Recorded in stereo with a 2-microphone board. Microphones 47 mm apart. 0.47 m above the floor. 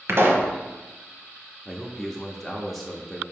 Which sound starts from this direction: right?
A pop, at 0.1 s.